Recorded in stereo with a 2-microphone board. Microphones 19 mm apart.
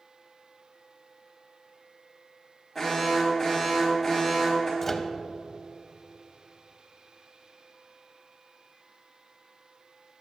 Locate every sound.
2.8 s an alarm: 5° left (ahead or behind), 3 m
4.8 s a microwave: 10° left (ahead or behind), 0.6 m